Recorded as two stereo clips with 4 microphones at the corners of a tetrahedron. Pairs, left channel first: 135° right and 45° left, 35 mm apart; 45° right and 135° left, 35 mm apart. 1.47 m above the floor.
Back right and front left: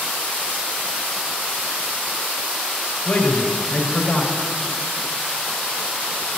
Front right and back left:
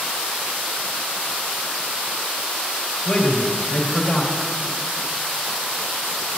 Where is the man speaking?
105° right, 1.8 m.